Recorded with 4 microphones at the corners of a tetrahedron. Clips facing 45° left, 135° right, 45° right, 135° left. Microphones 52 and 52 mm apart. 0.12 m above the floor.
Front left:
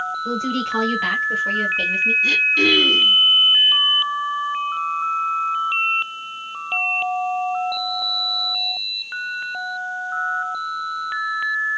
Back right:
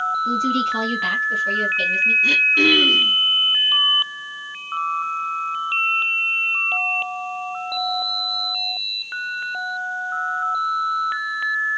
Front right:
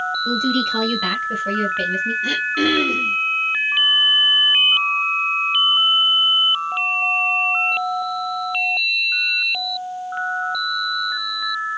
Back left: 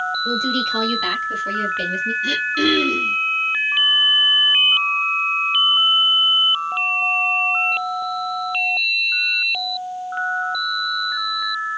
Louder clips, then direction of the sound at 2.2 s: Back right 1 dB, back left 1 dB; 100° right.